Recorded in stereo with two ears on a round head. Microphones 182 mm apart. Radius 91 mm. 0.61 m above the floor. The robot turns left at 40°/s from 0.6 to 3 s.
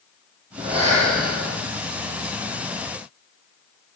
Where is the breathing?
25° right, 5 m; by 1.6 s 65° right, 5 m.